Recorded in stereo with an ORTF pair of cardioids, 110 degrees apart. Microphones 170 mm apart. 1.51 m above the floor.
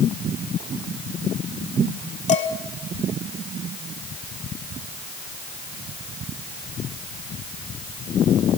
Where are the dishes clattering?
45° left, 3.5 m.